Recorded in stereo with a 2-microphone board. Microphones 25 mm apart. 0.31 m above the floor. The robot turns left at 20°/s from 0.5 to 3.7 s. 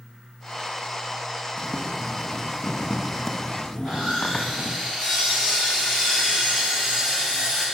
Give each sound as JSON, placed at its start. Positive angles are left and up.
{"t": 1.6, "sound": "boiling", "azimuth_deg": -165, "distance_m": 1.6}
{"t": 3.8, "sound": "sawing", "side_deg": -20, "distance_m": 6.0}